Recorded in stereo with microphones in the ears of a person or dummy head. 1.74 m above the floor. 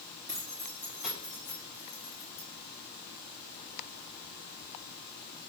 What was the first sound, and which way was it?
Keys jangling, 20° right (ahead or behind).